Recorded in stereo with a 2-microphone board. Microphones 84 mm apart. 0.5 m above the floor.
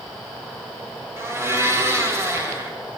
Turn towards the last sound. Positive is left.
turn(degrees=-30)  # may be behind; listen again after turning